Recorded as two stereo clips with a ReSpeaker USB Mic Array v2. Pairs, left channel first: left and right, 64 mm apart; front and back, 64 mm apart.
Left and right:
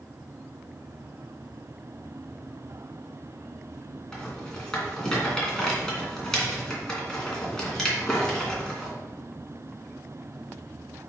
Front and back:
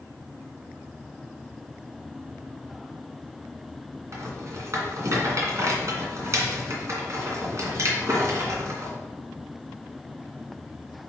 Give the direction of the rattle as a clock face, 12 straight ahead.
6 o'clock.